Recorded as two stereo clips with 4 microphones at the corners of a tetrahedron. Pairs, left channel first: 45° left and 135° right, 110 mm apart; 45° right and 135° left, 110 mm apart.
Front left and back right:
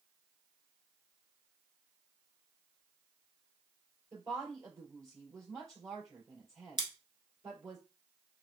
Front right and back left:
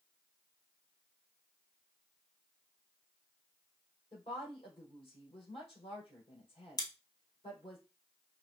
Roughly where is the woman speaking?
Right.